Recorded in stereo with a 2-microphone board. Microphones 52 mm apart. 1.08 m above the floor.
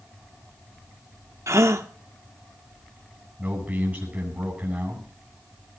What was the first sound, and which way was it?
A gasp, 70° right (ahead or behind).